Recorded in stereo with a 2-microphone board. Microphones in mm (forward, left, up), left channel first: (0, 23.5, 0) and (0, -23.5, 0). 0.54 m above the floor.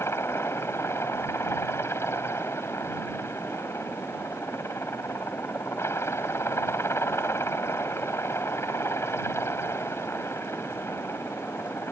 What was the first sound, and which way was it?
A helicopter, 65° left (ahead or behind).